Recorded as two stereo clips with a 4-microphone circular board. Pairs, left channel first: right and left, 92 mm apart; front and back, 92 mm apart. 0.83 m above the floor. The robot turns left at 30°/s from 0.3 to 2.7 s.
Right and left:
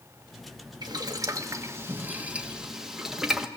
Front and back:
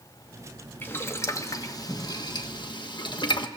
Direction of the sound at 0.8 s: 60° left.